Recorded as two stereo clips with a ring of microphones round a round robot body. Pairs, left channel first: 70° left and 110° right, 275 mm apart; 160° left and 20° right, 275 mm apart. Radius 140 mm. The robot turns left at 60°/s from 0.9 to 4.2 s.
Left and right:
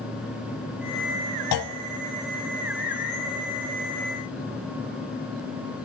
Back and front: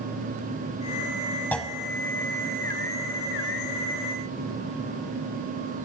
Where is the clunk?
75° left, 0.6 m; by 1.8 s 60° left, 0.6 m.